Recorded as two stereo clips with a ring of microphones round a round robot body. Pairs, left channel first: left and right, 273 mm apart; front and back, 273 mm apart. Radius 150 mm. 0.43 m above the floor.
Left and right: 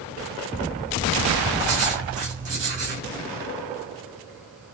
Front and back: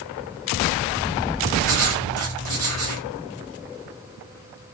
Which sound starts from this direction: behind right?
Writing, at 1.6 s.